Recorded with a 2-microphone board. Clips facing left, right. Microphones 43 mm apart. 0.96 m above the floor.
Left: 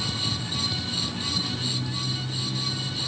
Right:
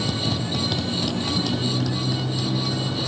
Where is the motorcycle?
70° right (ahead or behind); by 3.1 s 85° right.